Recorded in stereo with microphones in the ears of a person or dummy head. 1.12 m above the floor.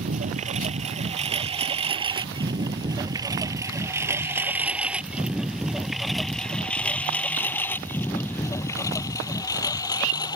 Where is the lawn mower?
40° right (ahead or behind); by 10.4 s 20° left (ahead or behind).